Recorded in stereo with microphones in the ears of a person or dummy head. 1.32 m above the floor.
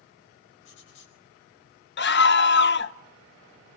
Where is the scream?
50° left (ahead or behind), 0.7 m.